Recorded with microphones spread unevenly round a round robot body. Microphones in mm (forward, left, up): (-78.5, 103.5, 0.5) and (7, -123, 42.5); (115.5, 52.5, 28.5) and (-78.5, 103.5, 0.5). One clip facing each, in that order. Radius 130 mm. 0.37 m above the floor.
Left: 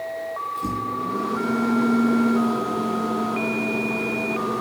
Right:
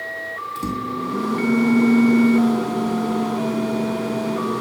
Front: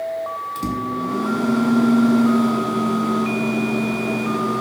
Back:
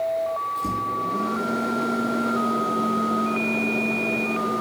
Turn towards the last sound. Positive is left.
turn(degrees=-20)